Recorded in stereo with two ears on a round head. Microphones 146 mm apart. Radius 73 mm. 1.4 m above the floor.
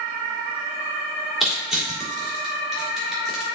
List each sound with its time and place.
1.4 s crushing: centre (ahead or behind), 4 m